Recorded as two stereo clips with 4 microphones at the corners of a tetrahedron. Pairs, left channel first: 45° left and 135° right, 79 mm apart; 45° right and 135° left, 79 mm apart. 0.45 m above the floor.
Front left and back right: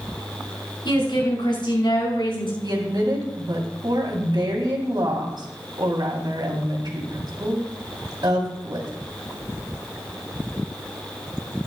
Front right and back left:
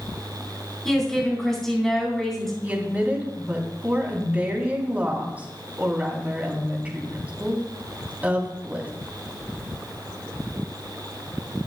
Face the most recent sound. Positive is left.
turn(degrees=-155)